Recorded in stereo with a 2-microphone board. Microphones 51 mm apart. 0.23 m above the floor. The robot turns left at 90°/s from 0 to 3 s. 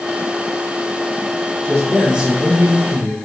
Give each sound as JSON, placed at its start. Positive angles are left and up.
{"t": 1.6, "sound": "a man speaking", "azimuth_deg": 35, "distance_m": 5.5}